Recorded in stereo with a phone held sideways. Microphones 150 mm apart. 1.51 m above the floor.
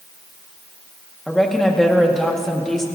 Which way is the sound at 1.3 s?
5° left (ahead or behind).